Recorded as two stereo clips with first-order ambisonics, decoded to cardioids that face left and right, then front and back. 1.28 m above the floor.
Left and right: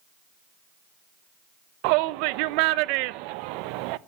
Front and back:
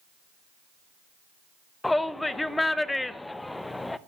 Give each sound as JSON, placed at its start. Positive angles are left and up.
{"t": 1.8, "sound": "a shout", "azimuth_deg": -85, "distance_m": 0.7}